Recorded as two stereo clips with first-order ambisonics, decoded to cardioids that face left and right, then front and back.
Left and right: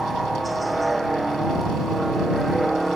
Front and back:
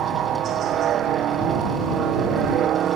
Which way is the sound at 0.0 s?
165° right.